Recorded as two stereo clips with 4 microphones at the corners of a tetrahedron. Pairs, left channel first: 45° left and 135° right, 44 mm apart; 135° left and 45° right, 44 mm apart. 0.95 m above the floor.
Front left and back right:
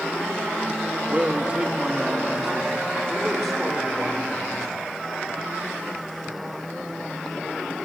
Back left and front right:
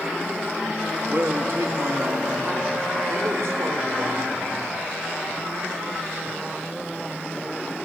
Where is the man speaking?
85° right, 1.5 m; by 4.9 s 35° right, 4.5 m.